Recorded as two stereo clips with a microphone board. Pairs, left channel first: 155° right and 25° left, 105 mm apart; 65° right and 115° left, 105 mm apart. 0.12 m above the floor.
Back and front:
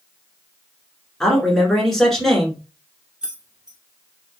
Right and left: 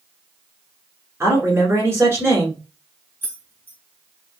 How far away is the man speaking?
About 1.3 m.